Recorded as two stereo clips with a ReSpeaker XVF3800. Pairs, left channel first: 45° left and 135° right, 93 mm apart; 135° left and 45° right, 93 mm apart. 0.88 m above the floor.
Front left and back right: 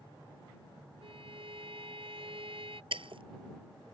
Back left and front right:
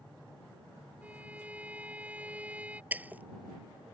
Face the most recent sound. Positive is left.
turn(degrees=-120)